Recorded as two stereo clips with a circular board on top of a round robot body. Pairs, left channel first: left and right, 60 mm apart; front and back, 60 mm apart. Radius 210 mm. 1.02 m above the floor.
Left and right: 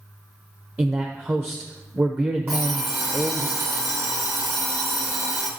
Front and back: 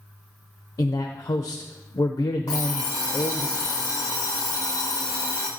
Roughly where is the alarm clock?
Ahead right.